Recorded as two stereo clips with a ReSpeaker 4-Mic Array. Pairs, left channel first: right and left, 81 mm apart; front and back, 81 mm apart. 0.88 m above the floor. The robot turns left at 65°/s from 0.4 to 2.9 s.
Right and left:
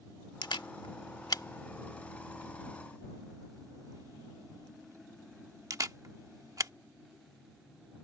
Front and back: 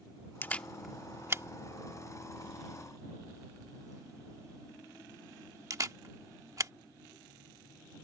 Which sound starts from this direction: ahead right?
A camera shutter, at 0.4 s.